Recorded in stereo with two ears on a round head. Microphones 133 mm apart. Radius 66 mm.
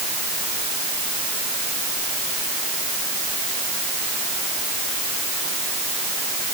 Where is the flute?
No flute in this recording.